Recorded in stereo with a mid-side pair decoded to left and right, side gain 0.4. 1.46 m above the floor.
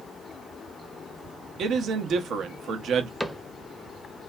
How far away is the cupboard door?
About 0.6 m.